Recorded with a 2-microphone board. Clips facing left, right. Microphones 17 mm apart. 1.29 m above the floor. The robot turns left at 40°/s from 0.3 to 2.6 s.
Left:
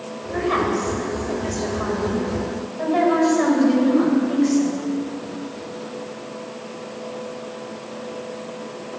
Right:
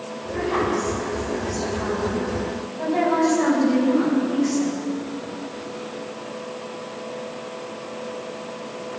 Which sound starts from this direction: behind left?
A woman speaking, at 0.3 s.